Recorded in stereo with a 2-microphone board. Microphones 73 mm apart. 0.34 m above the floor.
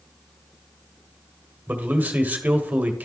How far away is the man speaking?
About 1.4 m.